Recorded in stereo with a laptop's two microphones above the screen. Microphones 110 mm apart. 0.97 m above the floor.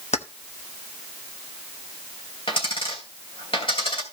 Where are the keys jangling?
75° left (ahead or behind), 1.0 m.